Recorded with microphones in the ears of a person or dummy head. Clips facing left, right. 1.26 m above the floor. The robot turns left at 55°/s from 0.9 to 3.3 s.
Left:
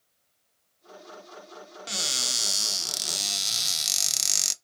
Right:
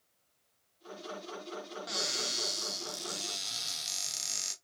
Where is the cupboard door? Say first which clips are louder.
Even; 145° left, 0.7 m; by 4.5 s 65° left, 0.7 m.